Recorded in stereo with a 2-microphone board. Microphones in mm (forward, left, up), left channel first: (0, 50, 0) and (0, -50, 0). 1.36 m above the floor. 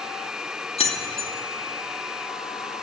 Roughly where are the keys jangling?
Left.